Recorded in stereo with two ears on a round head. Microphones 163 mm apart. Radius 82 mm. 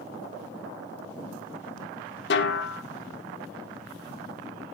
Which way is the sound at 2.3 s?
65° left (ahead or behind).